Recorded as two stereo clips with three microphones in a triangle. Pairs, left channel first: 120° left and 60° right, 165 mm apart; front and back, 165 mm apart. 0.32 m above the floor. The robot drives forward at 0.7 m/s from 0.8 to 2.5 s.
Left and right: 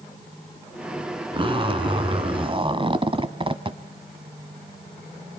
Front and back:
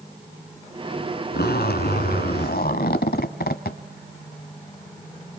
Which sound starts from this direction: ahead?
A zipper, at 1.3 s.